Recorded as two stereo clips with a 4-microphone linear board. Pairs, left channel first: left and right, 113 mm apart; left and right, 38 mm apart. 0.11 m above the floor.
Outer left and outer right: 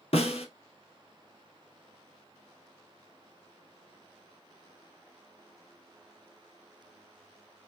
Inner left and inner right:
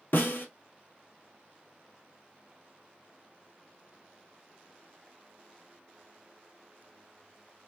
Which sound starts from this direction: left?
A snare drum, at 0.1 s.